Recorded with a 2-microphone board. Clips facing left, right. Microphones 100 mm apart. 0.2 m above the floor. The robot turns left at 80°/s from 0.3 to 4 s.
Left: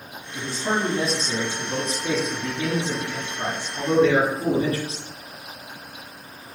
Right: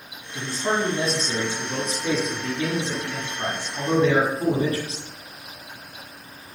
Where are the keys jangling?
No keys jangling in this recording.